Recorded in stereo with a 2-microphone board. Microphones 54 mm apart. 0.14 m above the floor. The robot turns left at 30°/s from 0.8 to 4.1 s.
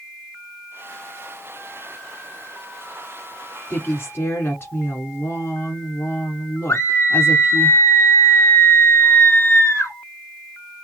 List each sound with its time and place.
3.7 s a woman speaking: 35° left (ahead or behind), 1.3 m; by 7.7 s 40° left (ahead or behind), 1.3 m
6.7 s a scream: 50° left (ahead or behind), 2.5 m